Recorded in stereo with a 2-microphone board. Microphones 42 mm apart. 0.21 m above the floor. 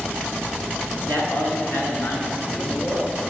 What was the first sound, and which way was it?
A man speaking, 60° left (ahead or behind).